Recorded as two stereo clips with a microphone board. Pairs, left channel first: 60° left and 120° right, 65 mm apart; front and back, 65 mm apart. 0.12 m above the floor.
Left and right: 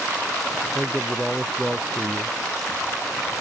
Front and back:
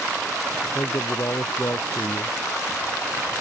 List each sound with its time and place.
0.8 s a man speaking: 35° right